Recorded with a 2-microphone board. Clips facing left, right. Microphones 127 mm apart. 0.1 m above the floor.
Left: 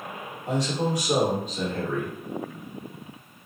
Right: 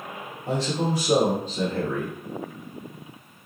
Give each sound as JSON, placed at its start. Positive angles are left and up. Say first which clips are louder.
{"t": 0.5, "sound": "a man speaking", "louder": "right 1 dB", "side_deg": -40, "distance_m": 1.8}